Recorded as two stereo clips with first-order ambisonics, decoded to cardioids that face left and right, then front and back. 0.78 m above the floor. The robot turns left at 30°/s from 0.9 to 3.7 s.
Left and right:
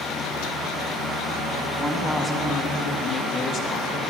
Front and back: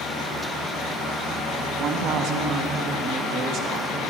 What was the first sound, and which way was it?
A woman speaking, 165° right.